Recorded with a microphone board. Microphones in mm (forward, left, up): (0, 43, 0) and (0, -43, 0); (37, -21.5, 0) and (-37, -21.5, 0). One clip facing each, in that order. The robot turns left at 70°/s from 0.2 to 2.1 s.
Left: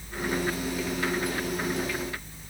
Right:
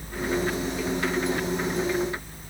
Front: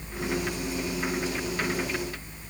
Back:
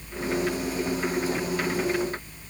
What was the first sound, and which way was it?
Only background noise.